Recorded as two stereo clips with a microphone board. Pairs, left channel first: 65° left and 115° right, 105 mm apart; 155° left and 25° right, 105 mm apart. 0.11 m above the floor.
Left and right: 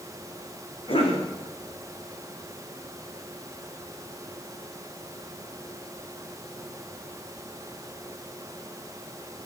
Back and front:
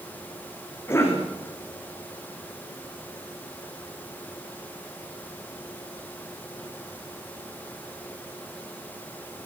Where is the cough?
90° left, 6.5 m.